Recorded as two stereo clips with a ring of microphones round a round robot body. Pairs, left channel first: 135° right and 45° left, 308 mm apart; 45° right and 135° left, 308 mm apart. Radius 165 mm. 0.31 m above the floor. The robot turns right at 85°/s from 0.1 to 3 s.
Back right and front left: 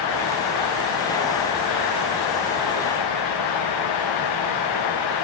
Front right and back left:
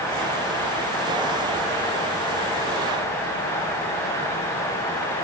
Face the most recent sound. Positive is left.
No sound to turn to.